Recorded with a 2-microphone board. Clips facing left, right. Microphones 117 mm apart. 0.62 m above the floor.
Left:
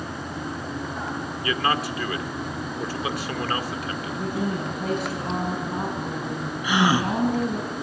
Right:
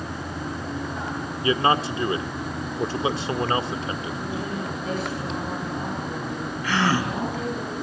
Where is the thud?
No thud in this recording.